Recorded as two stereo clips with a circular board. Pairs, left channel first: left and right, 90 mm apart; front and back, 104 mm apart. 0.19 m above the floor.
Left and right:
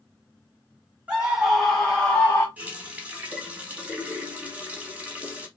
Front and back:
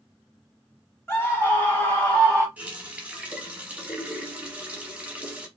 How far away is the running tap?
About 0.7 m.